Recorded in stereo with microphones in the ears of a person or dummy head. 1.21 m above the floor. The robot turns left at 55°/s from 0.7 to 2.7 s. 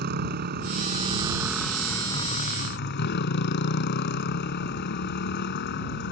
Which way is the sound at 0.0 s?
120° right.